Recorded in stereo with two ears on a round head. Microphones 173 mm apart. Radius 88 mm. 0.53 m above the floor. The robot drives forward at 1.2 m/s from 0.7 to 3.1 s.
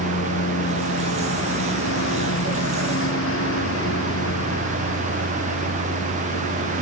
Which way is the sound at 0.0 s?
65° left (ahead or behind).